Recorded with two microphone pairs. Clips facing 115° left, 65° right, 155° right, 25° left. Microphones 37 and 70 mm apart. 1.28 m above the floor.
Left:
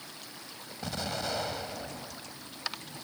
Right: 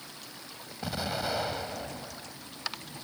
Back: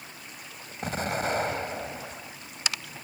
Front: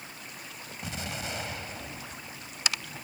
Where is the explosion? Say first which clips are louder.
Right 2 dB, back 9 dB; 145° right.